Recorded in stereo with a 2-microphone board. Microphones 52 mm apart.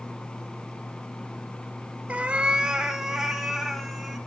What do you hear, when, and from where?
2.1 s a cat meowing: 30° right (ahead or behind), 0.6 m; by 4.2 s centre (ahead or behind), 1.7 m